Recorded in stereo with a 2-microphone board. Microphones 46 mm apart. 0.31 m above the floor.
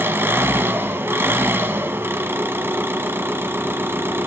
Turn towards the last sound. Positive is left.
turn(degrees=-60)  # may be behind; listen again after turning